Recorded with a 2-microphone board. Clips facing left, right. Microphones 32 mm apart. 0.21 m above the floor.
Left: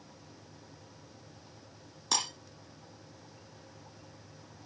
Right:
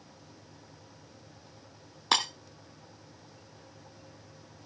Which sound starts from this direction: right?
Breaking glass, at 2.1 s.